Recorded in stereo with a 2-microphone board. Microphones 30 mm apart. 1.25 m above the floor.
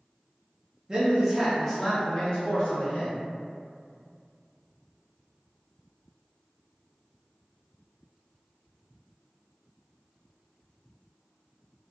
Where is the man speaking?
20° right (ahead or behind), 0.6 m; by 3.2 s 65° left (ahead or behind), 1.1 m.